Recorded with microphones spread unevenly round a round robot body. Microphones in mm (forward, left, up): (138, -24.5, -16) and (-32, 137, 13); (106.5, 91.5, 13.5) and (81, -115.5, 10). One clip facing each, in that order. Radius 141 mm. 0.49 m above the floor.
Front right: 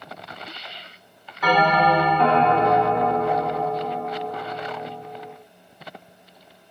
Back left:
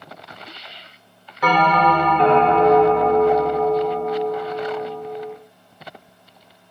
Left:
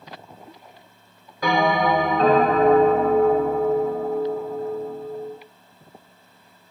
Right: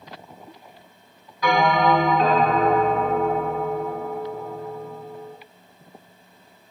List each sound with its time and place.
1.4 s a bell: 125° left, 1.7 m